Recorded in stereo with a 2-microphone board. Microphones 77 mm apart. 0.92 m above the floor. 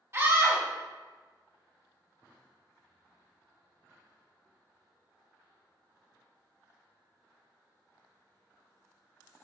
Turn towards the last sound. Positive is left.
turn(degrees=-35)  # may be behind; listen again after turning